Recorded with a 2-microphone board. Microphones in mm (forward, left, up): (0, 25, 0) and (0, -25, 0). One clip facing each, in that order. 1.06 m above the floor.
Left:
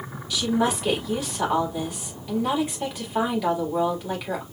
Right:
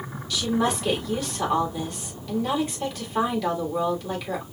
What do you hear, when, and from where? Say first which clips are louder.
0.3 s a woman speaking: left 1 dB; 15° left (ahead or behind), 3 m